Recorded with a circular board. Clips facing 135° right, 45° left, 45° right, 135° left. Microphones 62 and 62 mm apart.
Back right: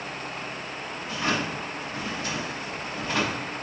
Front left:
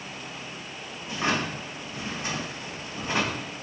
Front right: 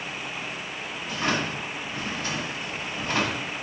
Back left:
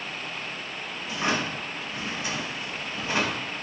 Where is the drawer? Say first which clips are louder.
Even, even; 85° left, 0.7 m.